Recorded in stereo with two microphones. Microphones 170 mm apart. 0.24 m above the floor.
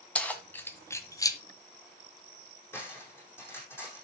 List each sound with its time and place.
0.1 s keys jangling: 10° left (ahead or behind), 1.5 m; by 1.4 s 25° left (ahead or behind), 1.0 m
2.7 s cutlery clinking: 15° left (ahead or behind), 5.5 m